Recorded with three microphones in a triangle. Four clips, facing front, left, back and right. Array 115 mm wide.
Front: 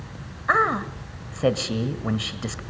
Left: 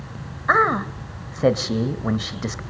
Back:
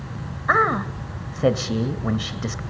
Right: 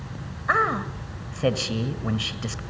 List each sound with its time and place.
0.5 s a man speaking: 110° left, 1.5 m